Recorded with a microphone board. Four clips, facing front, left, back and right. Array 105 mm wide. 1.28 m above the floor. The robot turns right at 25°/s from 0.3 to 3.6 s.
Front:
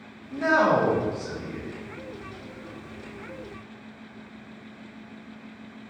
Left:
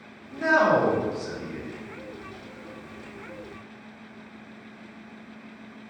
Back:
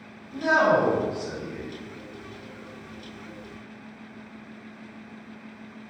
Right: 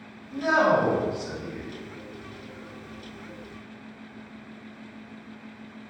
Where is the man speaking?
35° left, 0.7 m; by 1.7 s 70° left, 0.7 m.